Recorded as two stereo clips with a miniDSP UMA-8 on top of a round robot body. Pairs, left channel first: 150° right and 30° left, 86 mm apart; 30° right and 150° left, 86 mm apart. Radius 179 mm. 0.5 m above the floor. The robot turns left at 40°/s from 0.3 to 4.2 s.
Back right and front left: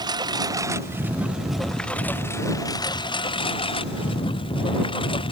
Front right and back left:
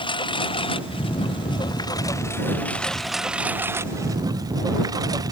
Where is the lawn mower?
10° right; by 5.3 s 165° right.